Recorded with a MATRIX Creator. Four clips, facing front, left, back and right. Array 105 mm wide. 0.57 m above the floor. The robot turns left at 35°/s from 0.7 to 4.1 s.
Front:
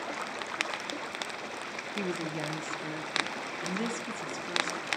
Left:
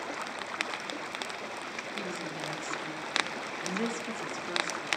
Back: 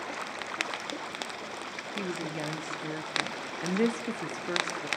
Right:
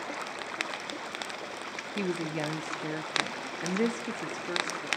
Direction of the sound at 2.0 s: 80° right.